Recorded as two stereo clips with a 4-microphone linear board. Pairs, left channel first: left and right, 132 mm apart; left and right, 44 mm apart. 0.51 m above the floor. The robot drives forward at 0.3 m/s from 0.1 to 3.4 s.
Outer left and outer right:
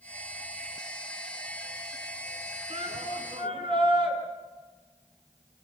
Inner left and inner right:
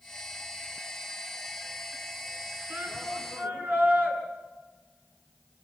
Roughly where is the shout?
Right.